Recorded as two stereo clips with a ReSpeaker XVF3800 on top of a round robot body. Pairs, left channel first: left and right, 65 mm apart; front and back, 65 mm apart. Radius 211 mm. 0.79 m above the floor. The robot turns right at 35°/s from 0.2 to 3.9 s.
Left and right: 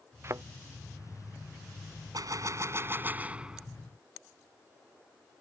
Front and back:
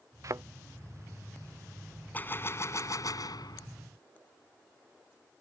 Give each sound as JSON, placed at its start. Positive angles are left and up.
{"t": 0.2, "sound": "a thud", "azimuth_deg": -145}
{"t": 2.1, "sound": "a gunshot", "azimuth_deg": -65}